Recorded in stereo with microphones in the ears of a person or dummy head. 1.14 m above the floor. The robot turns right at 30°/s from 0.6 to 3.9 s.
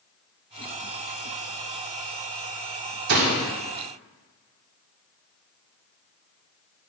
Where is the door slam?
55° right (ahead or behind), 1.8 m; by 3.5 s 65° right (ahead or behind), 1.8 m.